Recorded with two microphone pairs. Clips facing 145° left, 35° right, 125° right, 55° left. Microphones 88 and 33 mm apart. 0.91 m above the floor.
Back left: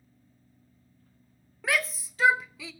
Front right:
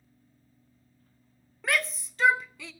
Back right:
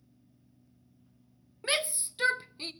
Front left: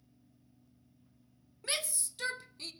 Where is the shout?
130° right, 0.5 m.